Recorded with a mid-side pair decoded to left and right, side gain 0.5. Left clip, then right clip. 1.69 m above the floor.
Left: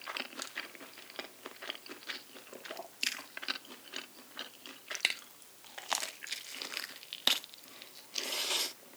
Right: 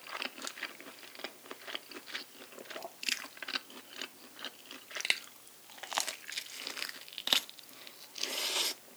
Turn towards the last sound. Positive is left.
No sound to turn to.